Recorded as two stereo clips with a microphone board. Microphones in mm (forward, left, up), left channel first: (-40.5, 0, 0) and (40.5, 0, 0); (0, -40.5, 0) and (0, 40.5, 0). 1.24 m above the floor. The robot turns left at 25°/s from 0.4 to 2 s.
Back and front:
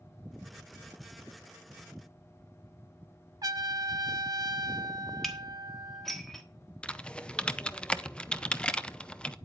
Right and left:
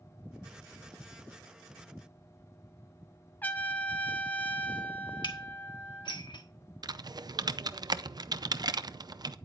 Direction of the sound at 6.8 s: 105° left.